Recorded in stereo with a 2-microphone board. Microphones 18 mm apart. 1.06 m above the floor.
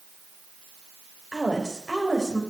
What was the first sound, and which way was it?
A woman speaking, 10° left (ahead or behind).